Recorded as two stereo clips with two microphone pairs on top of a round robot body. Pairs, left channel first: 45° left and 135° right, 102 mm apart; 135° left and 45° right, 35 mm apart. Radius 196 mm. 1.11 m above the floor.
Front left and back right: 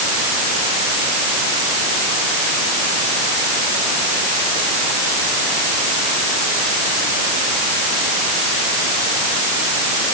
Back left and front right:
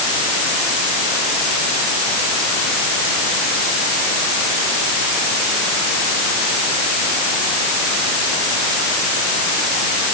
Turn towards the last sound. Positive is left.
No sound to turn to.